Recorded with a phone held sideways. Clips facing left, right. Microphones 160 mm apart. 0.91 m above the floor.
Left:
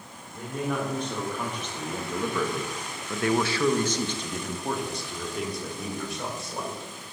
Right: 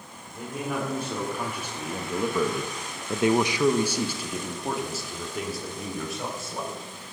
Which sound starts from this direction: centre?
A man speaking, at 0.3 s.